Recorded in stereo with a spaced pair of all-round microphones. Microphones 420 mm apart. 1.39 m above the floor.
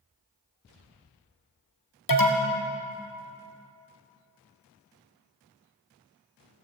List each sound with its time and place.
2.1 s an alarm: 50° left (ahead or behind), 1.3 m